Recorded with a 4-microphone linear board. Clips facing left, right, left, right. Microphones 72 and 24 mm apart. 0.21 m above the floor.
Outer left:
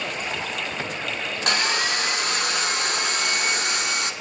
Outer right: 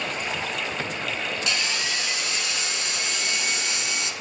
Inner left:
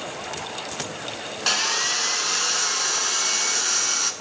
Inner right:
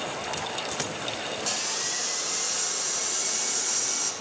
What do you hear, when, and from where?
1.5 s sawing: 55° left (ahead or behind), 1.3 m